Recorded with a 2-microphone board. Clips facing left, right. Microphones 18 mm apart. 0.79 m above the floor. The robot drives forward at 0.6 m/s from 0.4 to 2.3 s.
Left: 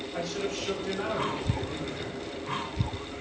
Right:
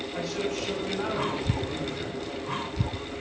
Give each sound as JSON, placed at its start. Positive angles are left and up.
{"t": 0.1, "sound": "a man speaking", "side_deg": 20, "distance_m": 4.0}